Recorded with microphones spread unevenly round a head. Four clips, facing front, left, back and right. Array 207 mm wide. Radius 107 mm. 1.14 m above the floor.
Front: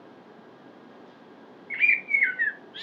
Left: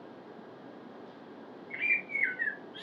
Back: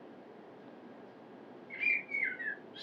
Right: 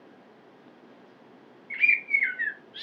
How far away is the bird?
About 1.1 m.